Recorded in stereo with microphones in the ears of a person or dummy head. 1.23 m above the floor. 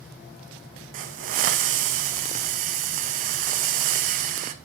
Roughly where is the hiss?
Right.